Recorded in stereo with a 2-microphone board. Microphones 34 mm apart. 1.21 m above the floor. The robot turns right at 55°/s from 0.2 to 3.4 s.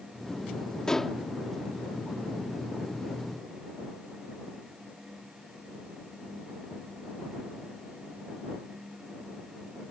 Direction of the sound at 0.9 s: 15° left (ahead or behind).